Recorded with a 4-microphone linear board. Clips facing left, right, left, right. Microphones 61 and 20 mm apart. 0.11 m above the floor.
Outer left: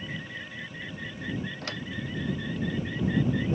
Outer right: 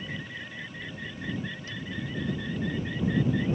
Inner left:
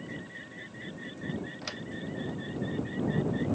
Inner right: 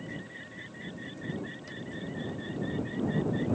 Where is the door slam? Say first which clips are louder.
Outer left 2 dB, inner left 3 dB; 80° left.